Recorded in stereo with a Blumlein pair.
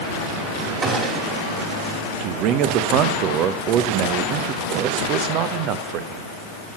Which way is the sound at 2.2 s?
40° right.